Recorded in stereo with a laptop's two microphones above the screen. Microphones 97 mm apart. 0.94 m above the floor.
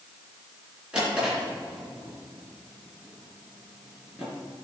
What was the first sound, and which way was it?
A drawer, 10° right (ahead or behind).